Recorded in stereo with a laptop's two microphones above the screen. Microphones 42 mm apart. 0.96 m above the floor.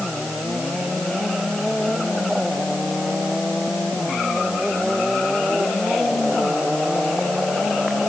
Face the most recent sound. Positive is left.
No sound to turn to.